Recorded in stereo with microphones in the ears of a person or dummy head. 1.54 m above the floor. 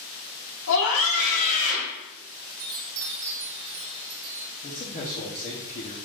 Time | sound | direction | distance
0.7 | a scream | 80° left | 1.5 m
2.6 | a chime | 80° right | 1.7 m
4.6 | a man speaking | 30° left (ahead or behind) | 1.1 m